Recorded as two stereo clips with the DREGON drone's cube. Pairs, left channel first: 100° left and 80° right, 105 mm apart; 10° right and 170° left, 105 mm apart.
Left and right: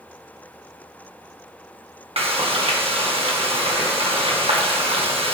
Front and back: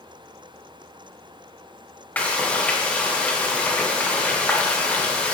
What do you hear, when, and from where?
2.2 s frying: 85° right, 1.6 m